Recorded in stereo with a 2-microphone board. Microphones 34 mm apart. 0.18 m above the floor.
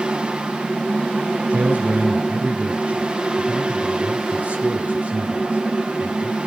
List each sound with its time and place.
1.5 s a man speaking: 40° right (ahead or behind), 3 m